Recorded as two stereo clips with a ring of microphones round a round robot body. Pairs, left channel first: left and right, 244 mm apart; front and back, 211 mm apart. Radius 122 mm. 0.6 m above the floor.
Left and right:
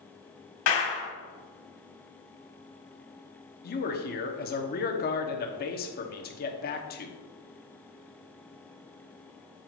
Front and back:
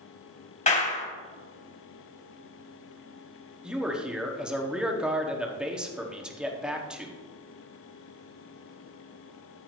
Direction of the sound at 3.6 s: 95° left.